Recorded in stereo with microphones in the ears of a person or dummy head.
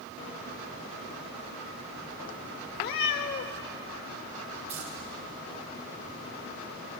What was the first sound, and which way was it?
A cat meowing, 45° left (ahead or behind).